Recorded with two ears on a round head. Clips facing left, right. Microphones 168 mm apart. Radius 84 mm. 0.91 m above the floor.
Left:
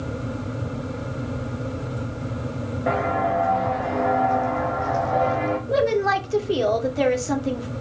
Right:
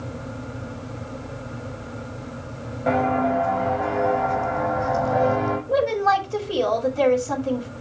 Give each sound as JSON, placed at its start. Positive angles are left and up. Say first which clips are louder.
{"t": 2.9, "sound": "footsteps", "louder": "right 3 dB", "side_deg": 5, "distance_m": 4.0}
{"t": 5.7, "sound": "a woman speaking", "louder": "even", "side_deg": 20, "distance_m": 2.5}